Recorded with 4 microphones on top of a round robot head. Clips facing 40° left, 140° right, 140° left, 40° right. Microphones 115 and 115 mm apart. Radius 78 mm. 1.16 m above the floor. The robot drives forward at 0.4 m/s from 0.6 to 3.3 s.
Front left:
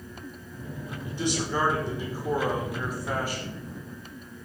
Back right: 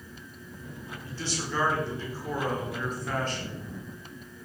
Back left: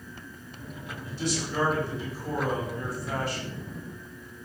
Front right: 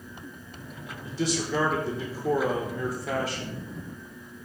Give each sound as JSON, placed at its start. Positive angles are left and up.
{"t": 1.0, "sound": "a man speaking", "azimuth_deg": -35, "distance_m": 5.5}